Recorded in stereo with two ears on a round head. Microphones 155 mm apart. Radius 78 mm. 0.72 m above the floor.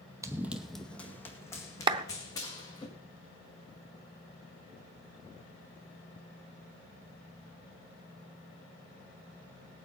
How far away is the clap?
About 0.6 m.